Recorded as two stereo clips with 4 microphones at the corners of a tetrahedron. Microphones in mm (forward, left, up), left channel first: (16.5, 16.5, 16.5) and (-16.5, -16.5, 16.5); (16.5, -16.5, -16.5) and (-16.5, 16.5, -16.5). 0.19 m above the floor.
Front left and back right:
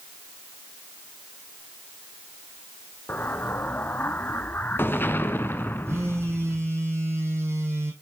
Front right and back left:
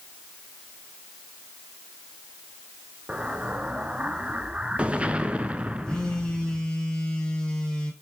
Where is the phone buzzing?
120° right, 1.5 m.